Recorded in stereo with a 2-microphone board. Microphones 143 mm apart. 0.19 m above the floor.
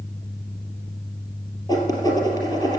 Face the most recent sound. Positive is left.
turn(degrees=25)  # may be behind; listen again after turning